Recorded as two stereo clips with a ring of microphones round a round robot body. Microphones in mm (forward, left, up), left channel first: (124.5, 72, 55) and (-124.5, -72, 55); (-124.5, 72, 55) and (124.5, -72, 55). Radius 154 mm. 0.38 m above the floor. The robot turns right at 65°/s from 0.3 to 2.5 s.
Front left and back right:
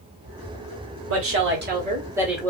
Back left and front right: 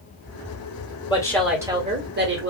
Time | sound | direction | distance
1.1 | a woman speaking | 145° right | 1.8 m